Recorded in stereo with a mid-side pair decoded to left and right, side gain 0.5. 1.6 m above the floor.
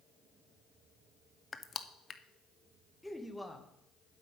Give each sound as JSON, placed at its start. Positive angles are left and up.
{"t": 1.5, "sound": "crushing", "azimuth_deg": 35, "distance_m": 0.8}
{"t": 3.0, "sound": "a man speaking", "azimuth_deg": 5, "distance_m": 1.9}